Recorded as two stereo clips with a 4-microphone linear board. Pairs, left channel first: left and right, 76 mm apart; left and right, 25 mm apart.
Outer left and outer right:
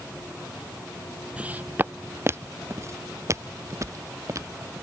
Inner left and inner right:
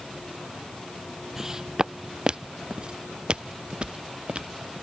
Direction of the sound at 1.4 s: 15° right (ahead or behind).